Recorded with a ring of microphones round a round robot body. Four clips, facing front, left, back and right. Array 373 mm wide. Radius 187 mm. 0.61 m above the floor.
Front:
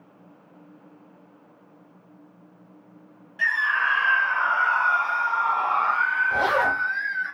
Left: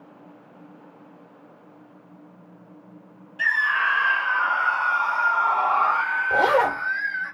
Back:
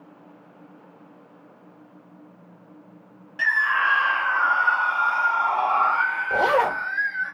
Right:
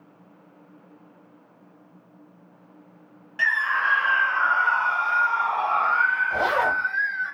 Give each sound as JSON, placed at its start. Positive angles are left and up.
{"t": 3.4, "sound": "a scream", "azimuth_deg": -125, "distance_m": 0.7}
{"t": 6.3, "sound": "a zipper", "azimuth_deg": 130, "distance_m": 1.3}